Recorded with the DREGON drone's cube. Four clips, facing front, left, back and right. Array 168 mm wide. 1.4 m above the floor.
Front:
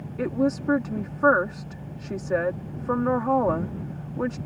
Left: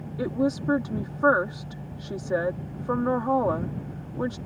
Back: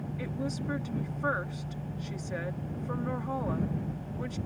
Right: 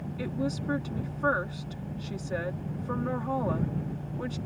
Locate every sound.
0.2 s a woman speaking: 35° left